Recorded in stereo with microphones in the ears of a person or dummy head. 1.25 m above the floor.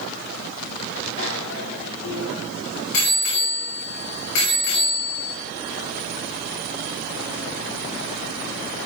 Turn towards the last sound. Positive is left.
turn(degrees=80)